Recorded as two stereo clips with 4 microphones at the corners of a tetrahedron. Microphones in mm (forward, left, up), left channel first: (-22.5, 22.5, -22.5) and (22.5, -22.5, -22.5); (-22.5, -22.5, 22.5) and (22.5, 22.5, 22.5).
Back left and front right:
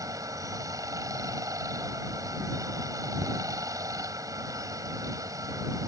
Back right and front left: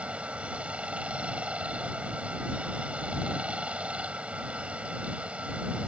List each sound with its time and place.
0.0 s running water: 25° right